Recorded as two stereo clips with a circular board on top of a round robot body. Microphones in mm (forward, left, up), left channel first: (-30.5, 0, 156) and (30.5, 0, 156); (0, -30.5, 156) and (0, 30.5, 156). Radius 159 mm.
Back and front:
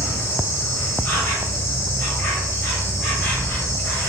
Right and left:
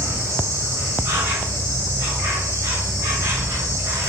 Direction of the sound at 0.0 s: 120° left.